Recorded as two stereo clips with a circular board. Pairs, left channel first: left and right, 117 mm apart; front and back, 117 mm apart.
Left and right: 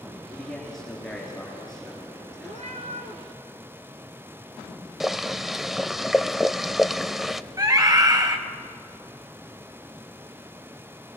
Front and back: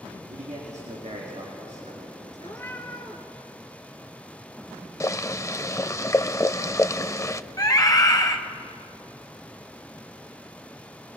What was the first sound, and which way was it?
A man speaking, 175° left.